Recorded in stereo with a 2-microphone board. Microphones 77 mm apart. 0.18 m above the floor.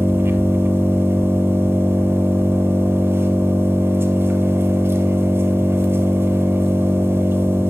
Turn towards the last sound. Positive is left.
turn(degrees=-30)  # may be behind; listen again after turning